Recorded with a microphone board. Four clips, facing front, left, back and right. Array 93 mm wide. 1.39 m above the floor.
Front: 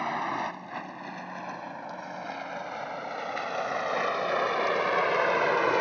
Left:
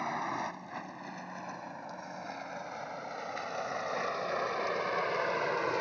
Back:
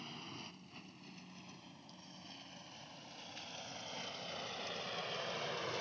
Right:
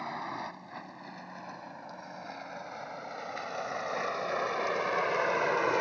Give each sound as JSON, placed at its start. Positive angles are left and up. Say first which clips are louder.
{"t": 0.0, "sound": "a vehicle", "louder": "left 3 dB, front 22 dB", "azimuth_deg": 10}